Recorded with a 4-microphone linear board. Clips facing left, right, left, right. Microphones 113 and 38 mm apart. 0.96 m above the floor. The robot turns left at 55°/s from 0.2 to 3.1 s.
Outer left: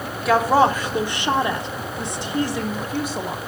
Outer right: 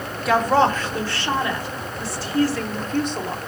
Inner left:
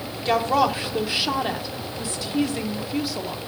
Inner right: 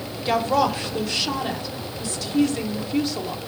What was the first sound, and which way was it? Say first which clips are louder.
A woman speaking: outer left 1 dB, even; centre (ahead or behind).